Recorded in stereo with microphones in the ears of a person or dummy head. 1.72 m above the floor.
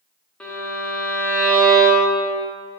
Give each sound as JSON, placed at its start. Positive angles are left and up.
{"t": 0.4, "sound": "a violin", "side_deg": 5, "distance_m": 1.0}